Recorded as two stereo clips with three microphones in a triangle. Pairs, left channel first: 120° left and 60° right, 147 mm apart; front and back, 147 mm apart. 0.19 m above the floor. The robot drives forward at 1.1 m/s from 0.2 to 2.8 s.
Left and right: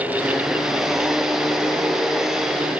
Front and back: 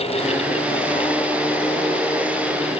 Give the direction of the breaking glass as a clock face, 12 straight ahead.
I don't hear breaking glass.